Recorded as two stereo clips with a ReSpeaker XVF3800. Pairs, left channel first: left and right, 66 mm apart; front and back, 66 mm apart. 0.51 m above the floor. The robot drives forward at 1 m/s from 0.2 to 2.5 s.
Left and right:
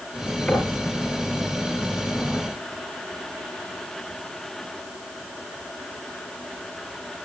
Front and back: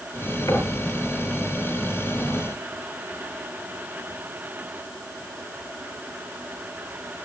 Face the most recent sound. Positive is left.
turn(degrees=30)